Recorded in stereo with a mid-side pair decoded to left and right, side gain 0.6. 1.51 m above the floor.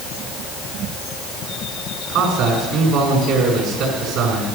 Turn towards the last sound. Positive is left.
turn(degrees=-70)